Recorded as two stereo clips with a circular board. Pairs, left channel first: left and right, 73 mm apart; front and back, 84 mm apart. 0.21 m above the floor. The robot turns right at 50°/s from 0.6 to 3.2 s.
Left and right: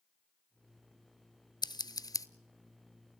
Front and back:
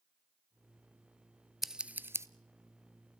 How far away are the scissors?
About 0.5 m.